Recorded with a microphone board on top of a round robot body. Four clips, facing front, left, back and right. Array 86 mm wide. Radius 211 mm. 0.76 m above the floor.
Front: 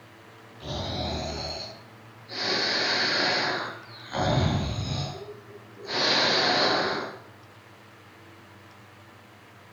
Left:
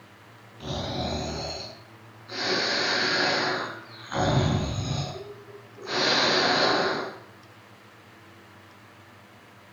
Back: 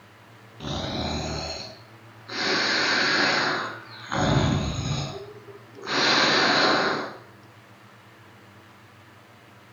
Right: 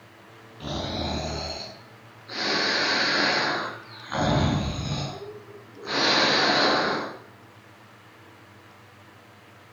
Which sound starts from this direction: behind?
Snoring, at 0.6 s.